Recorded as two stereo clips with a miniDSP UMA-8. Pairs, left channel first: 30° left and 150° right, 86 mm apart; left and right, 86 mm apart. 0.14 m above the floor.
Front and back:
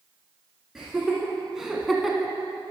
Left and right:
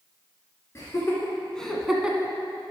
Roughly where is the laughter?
Behind left.